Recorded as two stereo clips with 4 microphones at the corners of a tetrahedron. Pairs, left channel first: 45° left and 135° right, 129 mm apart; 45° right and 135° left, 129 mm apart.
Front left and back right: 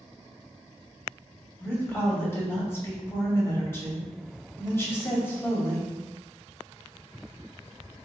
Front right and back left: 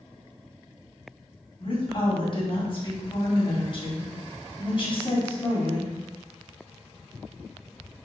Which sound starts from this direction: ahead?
A woman speaking, at 1.6 s.